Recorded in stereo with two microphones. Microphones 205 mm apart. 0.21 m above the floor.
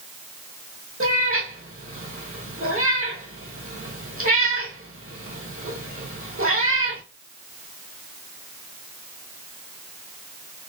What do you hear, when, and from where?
1.0 s a cat meowing: 85° right, 1.7 m